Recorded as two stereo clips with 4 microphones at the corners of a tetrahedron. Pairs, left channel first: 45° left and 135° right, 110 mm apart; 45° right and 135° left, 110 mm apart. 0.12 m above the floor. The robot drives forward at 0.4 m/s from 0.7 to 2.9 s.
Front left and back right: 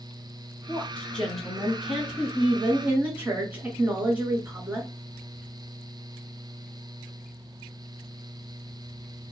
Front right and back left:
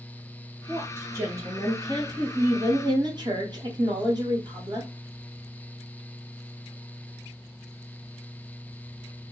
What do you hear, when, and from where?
0.7 s a woman speaking: 100° left, 1.1 m; by 4.9 s 155° left, 1.4 m